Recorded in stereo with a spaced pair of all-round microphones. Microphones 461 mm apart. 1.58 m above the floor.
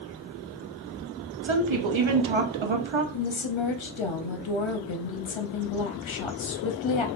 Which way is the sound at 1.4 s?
85° right.